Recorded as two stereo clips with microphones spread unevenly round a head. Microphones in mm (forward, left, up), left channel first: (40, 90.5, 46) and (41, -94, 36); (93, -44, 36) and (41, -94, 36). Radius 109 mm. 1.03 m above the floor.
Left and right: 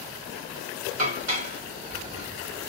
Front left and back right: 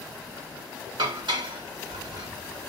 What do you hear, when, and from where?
1.0 s dishes clattering: 145° right, 1.2 m